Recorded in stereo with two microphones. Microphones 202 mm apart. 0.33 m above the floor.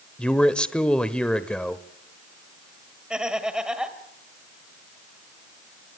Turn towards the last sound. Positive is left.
turn(degrees=-5)  # may be behind; listen again after turning